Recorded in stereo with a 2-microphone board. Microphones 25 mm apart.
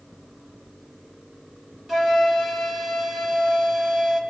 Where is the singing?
No singing in this recording.